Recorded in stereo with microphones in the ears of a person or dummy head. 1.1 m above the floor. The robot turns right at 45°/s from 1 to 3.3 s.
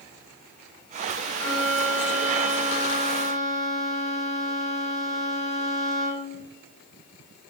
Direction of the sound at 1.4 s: 140° left.